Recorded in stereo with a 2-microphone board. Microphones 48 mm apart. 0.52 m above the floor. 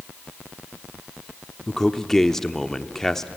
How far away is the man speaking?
About 0.8 m.